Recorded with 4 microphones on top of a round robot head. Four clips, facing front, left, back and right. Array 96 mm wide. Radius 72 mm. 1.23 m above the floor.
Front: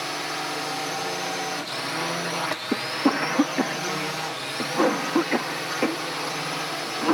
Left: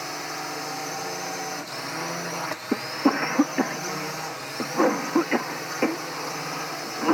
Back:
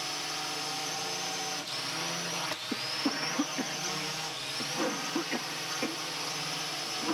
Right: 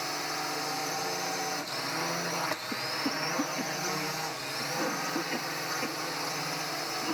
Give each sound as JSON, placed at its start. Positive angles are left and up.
{"t": 0.0, "sound": "a drone", "azimuth_deg": 15}
{"t": 2.7, "sound": "a cough", "azimuth_deg": 50}